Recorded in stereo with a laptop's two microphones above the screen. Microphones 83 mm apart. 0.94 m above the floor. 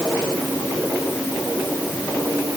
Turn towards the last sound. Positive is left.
No sound to turn to.